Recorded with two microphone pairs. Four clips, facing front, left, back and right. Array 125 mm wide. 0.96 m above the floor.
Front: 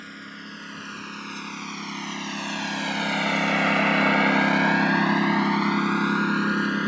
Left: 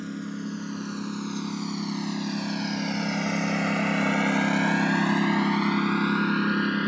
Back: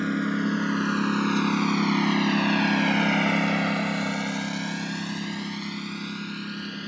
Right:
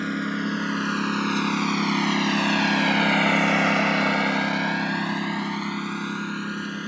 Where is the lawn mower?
125° right; by 6.9 s 25° left.